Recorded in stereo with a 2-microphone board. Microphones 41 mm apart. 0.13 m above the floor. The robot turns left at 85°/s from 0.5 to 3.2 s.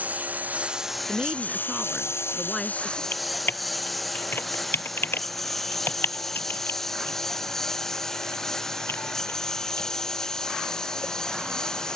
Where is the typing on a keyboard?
60° left (ahead or behind); by 11.1 s 65° left (ahead or behind).